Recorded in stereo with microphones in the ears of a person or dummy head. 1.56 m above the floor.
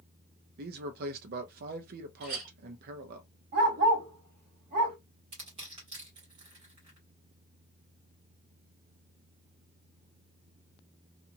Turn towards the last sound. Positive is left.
turn(degrees=-25)  # may be behind; listen again after turning